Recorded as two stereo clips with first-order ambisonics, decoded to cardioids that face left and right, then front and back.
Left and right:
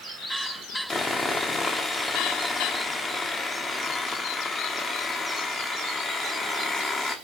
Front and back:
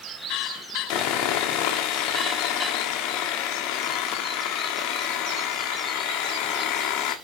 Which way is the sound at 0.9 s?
15° left.